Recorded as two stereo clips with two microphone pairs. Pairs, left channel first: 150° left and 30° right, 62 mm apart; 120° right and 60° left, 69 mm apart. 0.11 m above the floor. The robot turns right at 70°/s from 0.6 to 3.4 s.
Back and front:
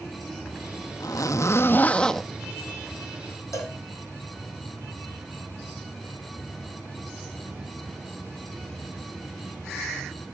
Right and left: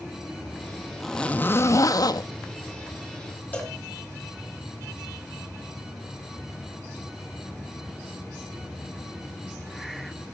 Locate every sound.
1.0 s a zipper: 150° left, 0.7 m; by 2.3 s 120° right, 0.7 m
3.5 s a cowbell: 175° left, 3.5 m